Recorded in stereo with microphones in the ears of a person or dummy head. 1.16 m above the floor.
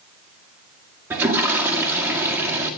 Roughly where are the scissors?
I don't hear scissors.